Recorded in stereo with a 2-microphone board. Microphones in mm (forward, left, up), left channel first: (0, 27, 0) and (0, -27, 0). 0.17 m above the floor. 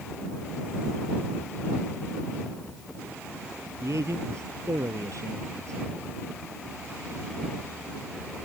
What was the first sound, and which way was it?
A man speaking, 70° right (ahead or behind).